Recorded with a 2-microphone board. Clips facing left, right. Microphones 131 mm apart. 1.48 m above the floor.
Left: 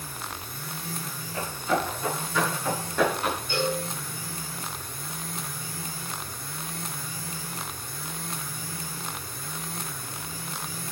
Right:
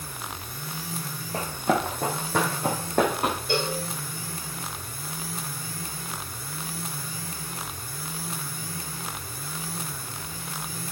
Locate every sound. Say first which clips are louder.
1.3 s running footsteps: right 2 dB; 65° right (ahead or behind), 3.5 m; by 3.4 s 45° right (ahead or behind), 4 m
3.5 s a cowbell: left 3 dB; 85° right, 3.5 m